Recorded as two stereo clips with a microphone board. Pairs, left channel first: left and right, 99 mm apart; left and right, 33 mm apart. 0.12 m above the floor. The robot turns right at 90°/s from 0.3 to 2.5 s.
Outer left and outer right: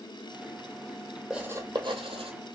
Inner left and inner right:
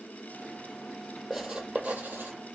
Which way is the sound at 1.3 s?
5° right (ahead or behind).